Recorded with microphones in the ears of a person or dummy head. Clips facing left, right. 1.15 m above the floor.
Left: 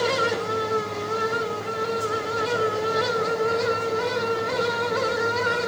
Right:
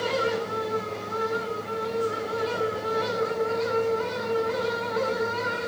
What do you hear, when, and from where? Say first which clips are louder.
0.0 s a fan: left 2 dB; 70° left (ahead or behind), 1.3 m